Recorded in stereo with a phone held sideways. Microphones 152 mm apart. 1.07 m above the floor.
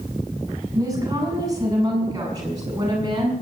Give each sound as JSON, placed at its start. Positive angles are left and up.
{"t": 0.7, "sound": "a woman speaking", "side_deg": -25, "distance_m": 7.0}